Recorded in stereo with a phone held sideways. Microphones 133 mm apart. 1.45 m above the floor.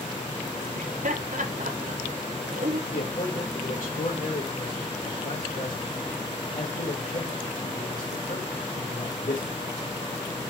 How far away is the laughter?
About 0.8 m.